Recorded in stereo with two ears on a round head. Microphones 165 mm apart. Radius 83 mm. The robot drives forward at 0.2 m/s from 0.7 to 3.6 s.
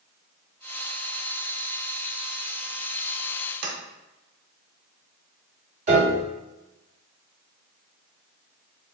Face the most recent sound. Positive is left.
turn(degrees=-40)  # may be behind; listen again after turning